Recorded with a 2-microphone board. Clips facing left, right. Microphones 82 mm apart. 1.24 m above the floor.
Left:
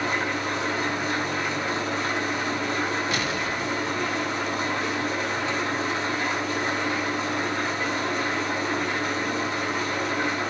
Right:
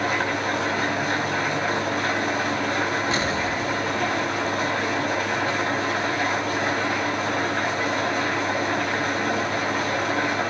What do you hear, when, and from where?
0.0 s an engine running: 60° right (ahead or behind), 4.5 m
3.1 s an explosion: 30° right (ahead or behind), 1.9 m